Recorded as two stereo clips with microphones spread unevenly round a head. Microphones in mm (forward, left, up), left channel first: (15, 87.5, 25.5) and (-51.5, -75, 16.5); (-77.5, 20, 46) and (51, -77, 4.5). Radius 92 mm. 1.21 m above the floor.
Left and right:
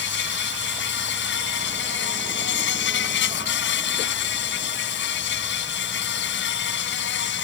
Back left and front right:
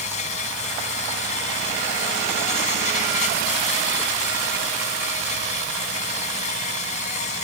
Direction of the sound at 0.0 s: 90° left.